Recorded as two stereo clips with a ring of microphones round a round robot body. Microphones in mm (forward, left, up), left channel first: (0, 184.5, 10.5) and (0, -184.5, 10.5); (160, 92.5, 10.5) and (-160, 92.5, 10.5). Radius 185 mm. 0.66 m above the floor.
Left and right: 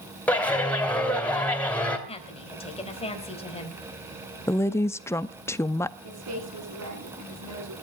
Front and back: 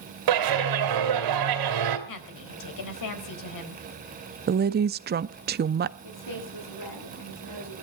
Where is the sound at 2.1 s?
15° left, 4 m.